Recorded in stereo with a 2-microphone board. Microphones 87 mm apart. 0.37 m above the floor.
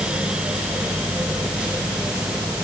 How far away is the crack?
I don't hear a crack.